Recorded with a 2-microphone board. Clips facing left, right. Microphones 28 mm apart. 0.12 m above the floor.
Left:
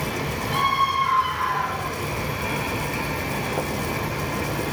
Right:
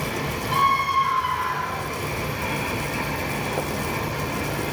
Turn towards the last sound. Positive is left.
turn(degrees=-15)  # may be behind; listen again after turning